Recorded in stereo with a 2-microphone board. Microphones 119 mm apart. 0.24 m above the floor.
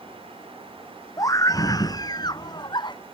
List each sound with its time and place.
1.2 s a scream: 30° left (ahead or behind); by 3.0 s 40° left (ahead or behind)